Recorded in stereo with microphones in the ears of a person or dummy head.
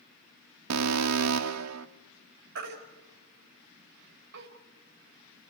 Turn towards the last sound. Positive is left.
turn(degrees=-60)  # may be behind; listen again after turning